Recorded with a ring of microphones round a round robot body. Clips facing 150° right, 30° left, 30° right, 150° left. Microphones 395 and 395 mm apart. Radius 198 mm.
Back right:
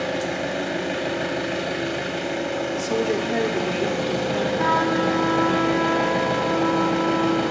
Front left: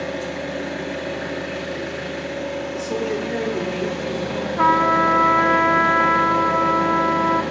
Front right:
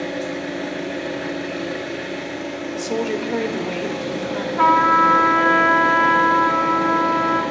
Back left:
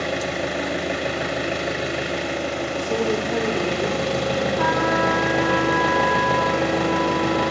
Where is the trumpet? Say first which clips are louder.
Even, even; 10° right, 0.6 m.